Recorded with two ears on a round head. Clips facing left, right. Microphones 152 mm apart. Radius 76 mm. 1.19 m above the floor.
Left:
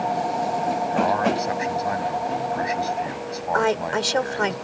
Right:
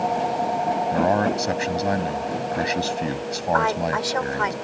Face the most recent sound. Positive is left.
turn(degrees=35)  # may be behind; listen again after turning